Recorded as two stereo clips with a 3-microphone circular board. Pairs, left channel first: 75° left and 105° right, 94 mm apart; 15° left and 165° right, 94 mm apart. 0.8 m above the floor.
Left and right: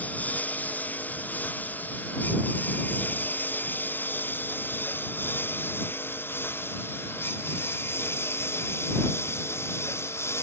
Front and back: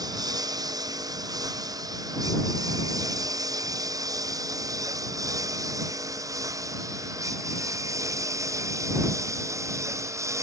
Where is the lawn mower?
150° left; by 10.4 s 140° left.